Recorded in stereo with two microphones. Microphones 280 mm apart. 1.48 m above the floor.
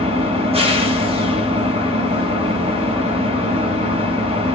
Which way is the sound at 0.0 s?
20° right (ahead or behind).